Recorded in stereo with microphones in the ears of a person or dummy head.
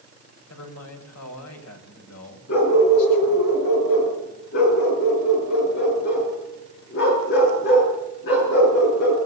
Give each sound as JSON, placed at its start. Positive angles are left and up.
{"t": 0.5, "sound": "a man speaking", "side_deg": 80, "distance_m": 5.5}
{"t": 2.5, "sound": "a dog barking", "side_deg": 65, "distance_m": 7.5}